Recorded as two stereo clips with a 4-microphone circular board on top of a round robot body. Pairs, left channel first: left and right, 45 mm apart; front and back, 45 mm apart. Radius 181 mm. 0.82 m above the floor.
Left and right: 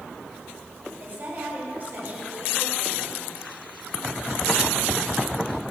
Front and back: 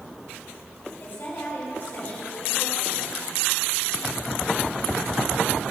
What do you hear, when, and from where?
1.0 s a woman speaking: 45° right, 4 m